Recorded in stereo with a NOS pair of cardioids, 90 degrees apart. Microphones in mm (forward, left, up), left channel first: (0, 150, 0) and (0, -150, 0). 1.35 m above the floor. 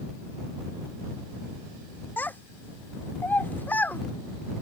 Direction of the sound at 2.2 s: 5° left.